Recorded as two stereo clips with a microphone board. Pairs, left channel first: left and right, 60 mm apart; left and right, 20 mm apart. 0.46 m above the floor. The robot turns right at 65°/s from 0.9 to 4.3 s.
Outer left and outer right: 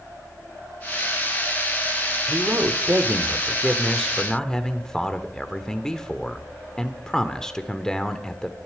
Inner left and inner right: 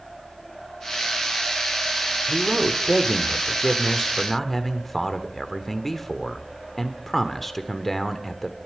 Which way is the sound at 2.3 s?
115° right.